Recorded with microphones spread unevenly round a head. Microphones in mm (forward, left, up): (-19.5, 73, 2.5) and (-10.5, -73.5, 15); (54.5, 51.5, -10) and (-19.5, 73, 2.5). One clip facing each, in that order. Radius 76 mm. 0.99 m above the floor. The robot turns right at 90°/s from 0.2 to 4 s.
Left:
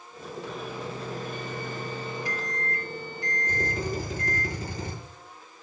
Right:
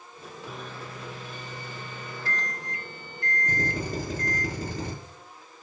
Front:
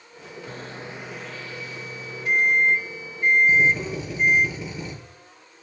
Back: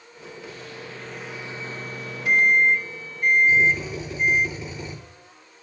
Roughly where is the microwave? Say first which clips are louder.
Left 4 dB, front 4 dB; ahead.